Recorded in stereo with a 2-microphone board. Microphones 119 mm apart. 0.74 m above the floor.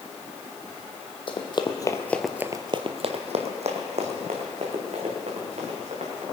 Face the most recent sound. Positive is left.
turn(degrees=-65)  # may be behind; listen again after turning